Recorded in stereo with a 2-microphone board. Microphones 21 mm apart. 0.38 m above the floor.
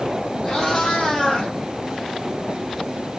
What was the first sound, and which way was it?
A cat meowing, 30° left (ahead or behind).